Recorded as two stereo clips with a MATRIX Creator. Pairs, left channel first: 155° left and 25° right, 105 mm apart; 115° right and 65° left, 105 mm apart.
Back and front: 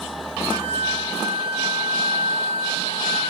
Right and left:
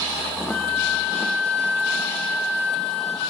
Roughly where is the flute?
Ahead right.